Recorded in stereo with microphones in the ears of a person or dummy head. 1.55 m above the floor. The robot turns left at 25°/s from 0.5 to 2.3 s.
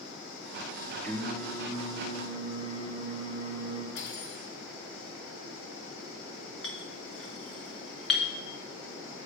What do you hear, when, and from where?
1.0 s singing: straight behind, 1.3 m; by 3.9 s 150° left, 1.3 m
4.0 s cutlery clinking: 75° left (ahead or behind), 3 m
6.6 s a clink: centre (ahead or behind), 1.3 m